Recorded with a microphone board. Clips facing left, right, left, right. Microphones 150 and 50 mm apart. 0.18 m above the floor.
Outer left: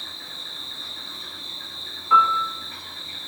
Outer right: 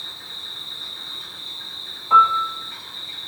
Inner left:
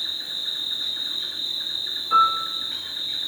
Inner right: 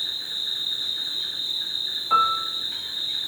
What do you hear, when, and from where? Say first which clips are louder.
0.0 s an insect: outer left 1 dB, even; 40° left (ahead or behind), 1.1 m
2.1 s a piano: outer right 2 dB, inner left 2 dB; 30° right (ahead or behind), 0.5 m